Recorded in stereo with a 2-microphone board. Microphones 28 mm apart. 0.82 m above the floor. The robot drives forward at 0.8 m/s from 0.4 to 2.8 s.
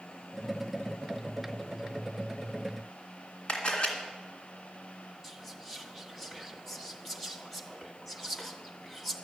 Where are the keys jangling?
I don't hear keys jangling.